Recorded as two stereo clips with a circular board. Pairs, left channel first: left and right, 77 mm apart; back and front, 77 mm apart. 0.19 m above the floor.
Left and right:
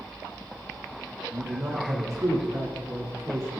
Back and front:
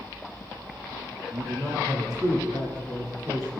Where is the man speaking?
40° right, 10 m.